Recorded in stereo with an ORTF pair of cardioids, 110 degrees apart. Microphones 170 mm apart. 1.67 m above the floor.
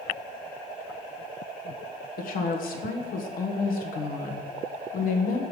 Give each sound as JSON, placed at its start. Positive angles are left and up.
{"t": 2.2, "sound": "a woman speaking", "azimuth_deg": 60, "distance_m": 1.3}